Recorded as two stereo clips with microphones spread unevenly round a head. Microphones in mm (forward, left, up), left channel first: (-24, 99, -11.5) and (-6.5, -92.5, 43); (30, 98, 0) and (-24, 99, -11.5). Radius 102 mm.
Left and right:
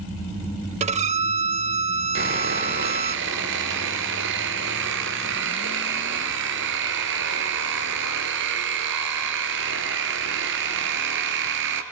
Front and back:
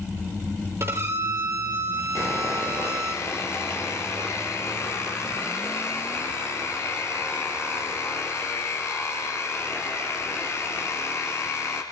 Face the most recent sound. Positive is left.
turn(degrees=-60)